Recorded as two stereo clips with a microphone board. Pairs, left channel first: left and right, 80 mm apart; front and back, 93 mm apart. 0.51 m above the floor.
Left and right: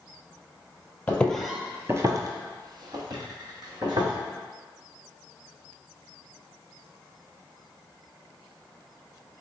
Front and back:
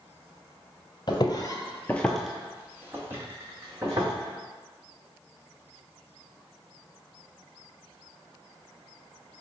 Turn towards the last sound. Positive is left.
turn(degrees=-120)